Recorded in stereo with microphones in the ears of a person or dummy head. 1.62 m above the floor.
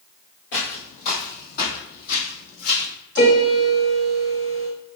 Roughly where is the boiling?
No boiling in this recording.